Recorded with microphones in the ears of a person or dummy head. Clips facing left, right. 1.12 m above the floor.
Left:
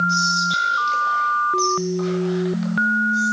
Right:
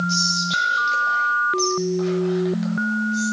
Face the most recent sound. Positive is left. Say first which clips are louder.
# left 1 dB
turn(degrees=5)  # may be behind; listen again after turning